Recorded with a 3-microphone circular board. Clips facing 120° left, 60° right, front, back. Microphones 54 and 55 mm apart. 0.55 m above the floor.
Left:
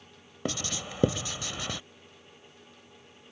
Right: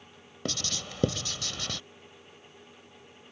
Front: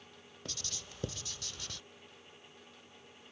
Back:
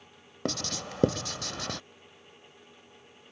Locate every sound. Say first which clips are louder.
0.5 s writing: left 2 dB, back 15 dB; 165° right